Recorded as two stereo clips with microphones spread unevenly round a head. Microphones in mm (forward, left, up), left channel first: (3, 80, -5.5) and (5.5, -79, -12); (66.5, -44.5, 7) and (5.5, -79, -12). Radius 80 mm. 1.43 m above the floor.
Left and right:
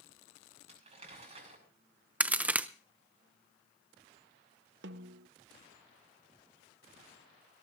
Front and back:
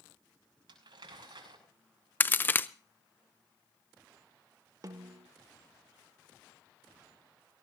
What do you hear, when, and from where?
0.7 s crumpling: 145° right, 5.5 m
2.2 s a crack: 10° right, 0.6 m
4.8 s a snare drum: 105° right, 0.8 m